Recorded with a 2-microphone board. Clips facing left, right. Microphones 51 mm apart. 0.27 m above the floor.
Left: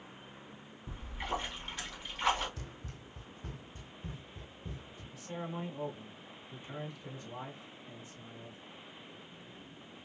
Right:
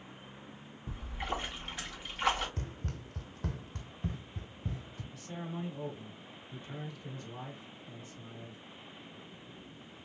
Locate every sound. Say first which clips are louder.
0.9 s a splash: even; 10° right (ahead or behind), 2 m
2.6 s running footsteps: right 5 dB; 40° right (ahead or behind), 0.6 m; by 5.0 s 45° right (ahead or behind), 1.7 m
5.1 s a man speaking: left 1 dB; 15° left (ahead or behind), 1.1 m